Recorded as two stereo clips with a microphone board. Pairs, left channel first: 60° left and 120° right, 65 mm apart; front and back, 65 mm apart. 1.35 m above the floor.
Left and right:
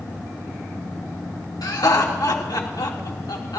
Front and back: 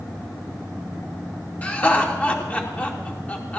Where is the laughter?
65° left, 2.5 m.